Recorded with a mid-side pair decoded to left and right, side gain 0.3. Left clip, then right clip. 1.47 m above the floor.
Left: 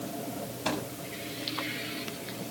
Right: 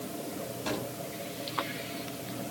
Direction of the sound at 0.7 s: 65° left.